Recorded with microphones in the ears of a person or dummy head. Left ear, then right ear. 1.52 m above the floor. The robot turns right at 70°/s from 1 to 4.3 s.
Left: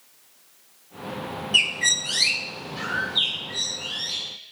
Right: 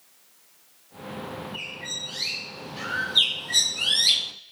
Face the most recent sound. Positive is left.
turn(degrees=-75)